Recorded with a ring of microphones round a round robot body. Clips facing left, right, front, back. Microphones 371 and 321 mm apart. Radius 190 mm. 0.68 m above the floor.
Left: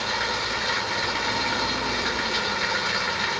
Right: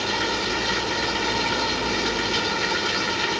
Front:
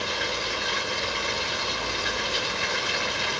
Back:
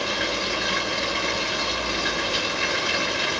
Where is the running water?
140° right.